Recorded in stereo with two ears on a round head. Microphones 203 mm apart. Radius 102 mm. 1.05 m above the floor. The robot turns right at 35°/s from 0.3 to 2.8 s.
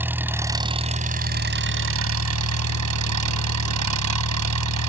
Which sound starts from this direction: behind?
An engine running, at 0.0 s.